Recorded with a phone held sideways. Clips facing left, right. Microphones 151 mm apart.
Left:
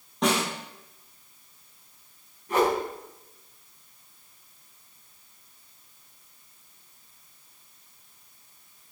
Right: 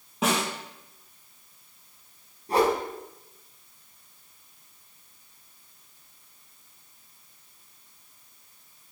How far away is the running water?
No running water in this recording.